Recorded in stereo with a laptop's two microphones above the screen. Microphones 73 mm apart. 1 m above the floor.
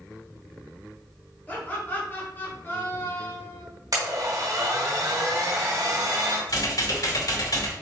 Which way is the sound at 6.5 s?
55° left (ahead or behind).